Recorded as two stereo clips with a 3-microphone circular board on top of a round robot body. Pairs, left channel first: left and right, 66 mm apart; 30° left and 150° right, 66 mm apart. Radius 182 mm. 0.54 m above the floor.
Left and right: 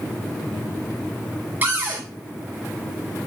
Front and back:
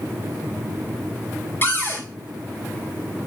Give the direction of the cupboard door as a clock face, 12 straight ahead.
1 o'clock.